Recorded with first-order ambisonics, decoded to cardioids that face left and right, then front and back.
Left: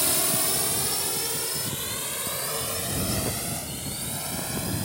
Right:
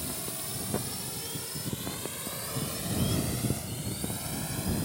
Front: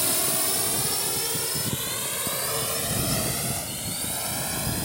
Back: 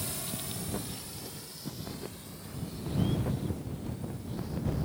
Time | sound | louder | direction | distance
0.0 | a drone | left 12 dB, front 12 dB | 45° left | ?